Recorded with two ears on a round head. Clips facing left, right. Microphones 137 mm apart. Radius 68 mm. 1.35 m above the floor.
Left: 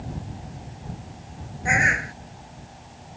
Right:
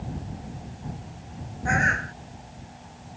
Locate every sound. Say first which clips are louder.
1.6 s a bird: left 1 dB; 15° left (ahead or behind)